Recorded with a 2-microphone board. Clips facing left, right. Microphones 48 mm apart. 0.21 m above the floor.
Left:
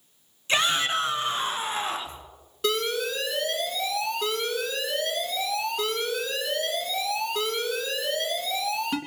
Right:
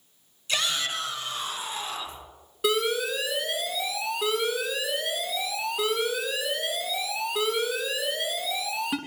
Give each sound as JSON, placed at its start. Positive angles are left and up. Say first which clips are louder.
{"t": 0.5, "sound": "a shout", "louder": "left 5 dB", "side_deg": 30, "distance_m": 2.0}
{"t": 2.6, "sound": "an alarm", "louder": "right 1 dB", "side_deg": -10, "distance_m": 3.0}